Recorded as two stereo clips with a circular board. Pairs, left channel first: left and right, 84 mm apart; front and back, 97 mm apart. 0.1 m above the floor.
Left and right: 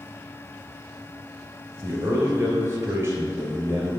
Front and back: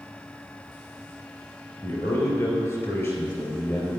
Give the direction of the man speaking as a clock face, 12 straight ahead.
2 o'clock.